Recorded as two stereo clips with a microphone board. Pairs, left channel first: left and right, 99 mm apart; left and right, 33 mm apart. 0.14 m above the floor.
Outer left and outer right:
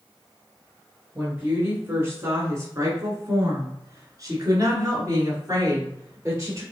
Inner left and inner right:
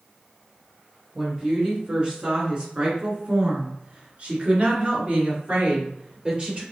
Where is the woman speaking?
15° right (ahead or behind), 1.7 m; by 6.6 s 30° right (ahead or behind), 2.5 m.